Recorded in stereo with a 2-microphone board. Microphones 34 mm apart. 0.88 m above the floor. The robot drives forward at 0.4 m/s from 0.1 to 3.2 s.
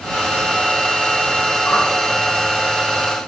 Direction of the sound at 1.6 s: 75° left (ahead or behind).